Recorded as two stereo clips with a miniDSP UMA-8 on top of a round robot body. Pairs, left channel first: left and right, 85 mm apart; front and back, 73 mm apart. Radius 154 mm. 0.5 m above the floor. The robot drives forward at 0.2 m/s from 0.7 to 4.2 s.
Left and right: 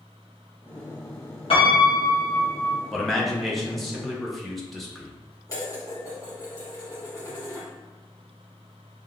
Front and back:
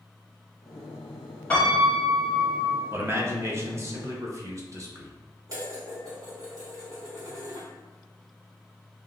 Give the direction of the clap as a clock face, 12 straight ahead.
No clap in this recording.